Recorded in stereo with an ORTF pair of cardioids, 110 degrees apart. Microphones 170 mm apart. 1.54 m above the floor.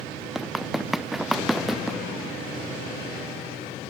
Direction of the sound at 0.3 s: Straight ahead.